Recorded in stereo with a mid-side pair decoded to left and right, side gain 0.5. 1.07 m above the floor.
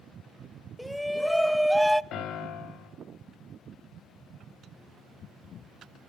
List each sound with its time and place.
0.8 s a shout: straight ahead, 1.0 m
2.1 s a piano: 65° left, 3 m